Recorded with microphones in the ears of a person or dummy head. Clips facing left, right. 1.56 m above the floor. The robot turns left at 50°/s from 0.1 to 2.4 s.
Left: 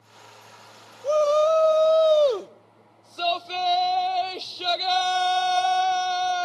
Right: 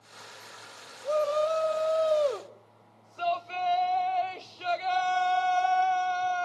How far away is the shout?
About 0.7 m.